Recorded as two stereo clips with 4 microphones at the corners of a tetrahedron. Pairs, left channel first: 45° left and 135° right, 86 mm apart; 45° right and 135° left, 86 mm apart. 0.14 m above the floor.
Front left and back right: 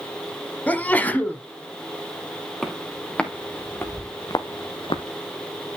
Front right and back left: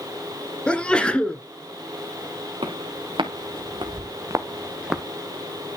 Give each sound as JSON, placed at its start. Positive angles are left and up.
{"t": 0.7, "sound": "a sneeze", "azimuth_deg": 10, "distance_m": 1.3}
{"t": 2.6, "sound": "footsteps", "azimuth_deg": 130, "distance_m": 3.0}